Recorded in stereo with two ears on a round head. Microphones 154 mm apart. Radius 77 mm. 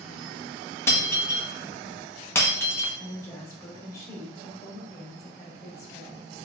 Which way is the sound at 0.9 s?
15° left (ahead or behind).